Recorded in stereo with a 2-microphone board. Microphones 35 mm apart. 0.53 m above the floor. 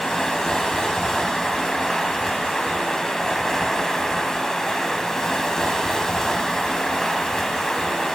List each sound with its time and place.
0.0 s running water: 10° left (ahead or behind), 1.3 m